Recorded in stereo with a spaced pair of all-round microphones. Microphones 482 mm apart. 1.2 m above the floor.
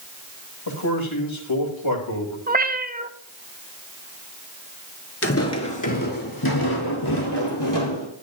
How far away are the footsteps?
About 1.3 m.